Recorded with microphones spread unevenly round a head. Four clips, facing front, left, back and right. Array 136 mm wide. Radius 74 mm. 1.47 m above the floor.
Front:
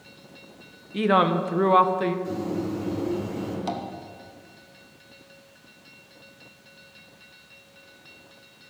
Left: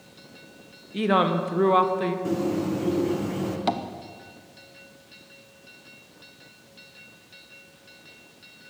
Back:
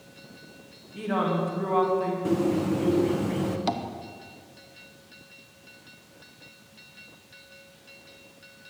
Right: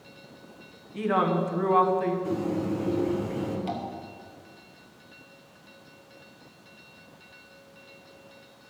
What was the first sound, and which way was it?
A woman speaking, 50° left.